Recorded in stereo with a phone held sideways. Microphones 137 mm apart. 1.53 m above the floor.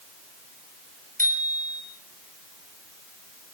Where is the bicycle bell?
85° right, 6.5 m.